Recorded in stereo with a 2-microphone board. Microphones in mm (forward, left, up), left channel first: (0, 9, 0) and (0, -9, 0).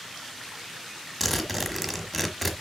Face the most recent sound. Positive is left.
turn(degrees=-5)  # may be behind; listen again after turning